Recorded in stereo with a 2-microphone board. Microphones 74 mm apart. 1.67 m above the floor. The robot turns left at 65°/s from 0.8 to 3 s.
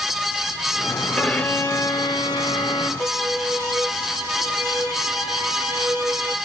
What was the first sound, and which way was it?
A violin, 170° left.